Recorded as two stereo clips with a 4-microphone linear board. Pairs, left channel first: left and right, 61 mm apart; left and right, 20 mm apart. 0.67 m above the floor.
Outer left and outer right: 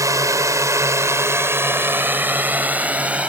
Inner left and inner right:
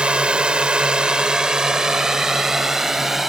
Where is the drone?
70° right (ahead or behind); by 3.3 s 20° right (ahead or behind).